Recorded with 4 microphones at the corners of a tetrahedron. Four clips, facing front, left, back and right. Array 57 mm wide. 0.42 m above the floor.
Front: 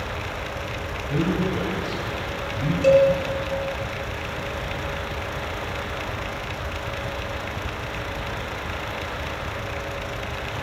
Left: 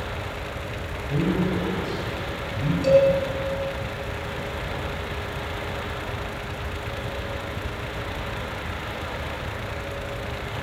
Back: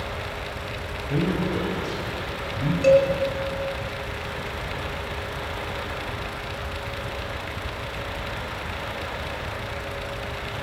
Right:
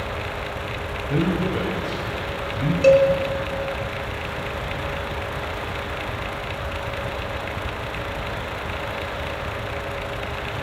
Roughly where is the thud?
No thud in this recording.